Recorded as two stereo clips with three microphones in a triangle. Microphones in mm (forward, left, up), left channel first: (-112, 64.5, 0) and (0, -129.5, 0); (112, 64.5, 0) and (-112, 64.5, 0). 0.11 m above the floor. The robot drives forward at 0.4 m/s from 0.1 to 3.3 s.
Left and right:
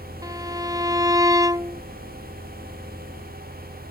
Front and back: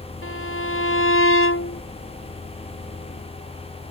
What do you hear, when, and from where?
0.2 s a violin: 15° left